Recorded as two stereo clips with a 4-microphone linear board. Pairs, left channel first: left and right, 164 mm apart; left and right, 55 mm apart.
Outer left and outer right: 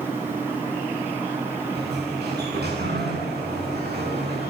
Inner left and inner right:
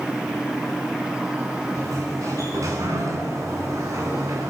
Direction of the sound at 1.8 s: 75° right (ahead or behind).